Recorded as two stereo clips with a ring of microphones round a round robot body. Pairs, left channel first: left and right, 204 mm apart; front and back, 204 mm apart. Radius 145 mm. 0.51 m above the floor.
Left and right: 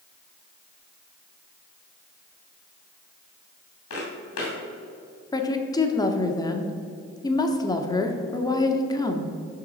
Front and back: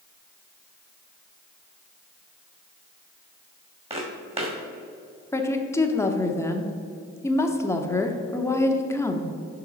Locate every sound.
3.9 s footsteps: 120° left, 2.5 m
5.3 s a woman speaking: 55° left, 0.8 m